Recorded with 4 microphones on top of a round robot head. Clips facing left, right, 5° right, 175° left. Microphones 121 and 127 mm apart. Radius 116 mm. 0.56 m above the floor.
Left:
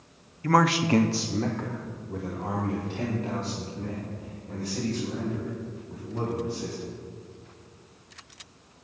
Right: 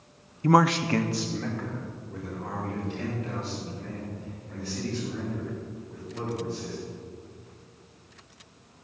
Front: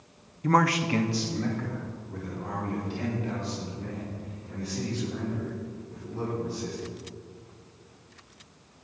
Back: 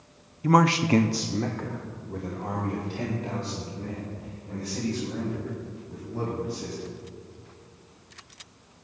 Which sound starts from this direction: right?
A man speaking, at 0.4 s.